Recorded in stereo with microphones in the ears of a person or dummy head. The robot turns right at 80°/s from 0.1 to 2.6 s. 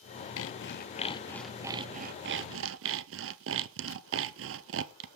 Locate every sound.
0.4 s sawing: 90° left, 0.5 m; by 5.1 s 90° right, 0.5 m